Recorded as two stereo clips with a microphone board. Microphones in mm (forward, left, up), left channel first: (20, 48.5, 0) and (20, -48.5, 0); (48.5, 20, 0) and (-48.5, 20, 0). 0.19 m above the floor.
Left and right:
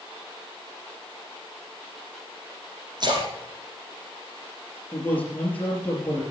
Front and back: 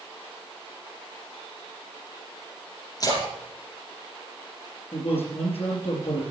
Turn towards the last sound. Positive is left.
turn(degrees=15)